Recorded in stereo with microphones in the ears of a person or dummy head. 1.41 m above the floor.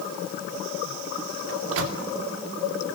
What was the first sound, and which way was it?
A microwave, 80° right.